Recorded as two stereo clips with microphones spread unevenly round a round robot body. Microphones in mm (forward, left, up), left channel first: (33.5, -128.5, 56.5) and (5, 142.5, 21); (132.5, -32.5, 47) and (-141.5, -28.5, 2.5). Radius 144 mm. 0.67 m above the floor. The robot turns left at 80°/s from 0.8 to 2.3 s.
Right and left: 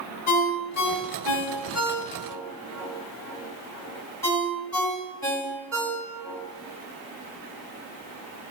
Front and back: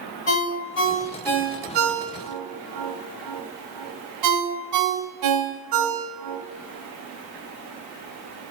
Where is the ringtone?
50° right, 3 m; by 6.4 s 170° right, 3 m.